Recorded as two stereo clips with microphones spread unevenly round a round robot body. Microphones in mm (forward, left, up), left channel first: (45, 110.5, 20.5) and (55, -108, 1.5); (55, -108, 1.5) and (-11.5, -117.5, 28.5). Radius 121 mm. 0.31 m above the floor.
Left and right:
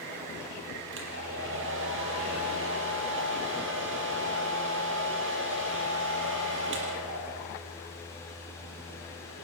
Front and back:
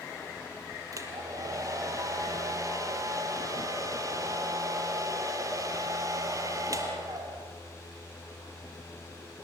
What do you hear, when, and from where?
0.9 s a hair dryer: 135° right, 5 m